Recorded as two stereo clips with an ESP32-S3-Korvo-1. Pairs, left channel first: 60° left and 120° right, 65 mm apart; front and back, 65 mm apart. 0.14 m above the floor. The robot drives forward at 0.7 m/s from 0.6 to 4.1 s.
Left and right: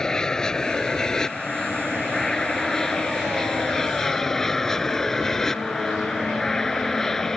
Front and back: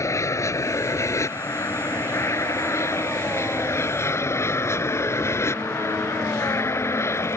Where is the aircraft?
15° right; by 7.4 s 20° right.